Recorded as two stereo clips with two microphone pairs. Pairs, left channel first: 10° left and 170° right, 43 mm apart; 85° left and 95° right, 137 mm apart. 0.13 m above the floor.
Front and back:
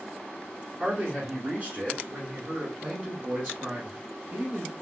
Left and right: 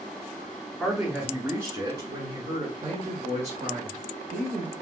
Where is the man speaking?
170° left, 1.4 m; by 4.7 s 120° right, 3 m.